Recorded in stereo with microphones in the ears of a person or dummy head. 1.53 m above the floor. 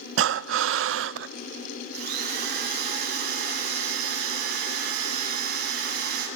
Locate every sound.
0.2 s breathing: 75° right (ahead or behind), 0.5 m
1.9 s a drill: 50° right (ahead or behind), 7 m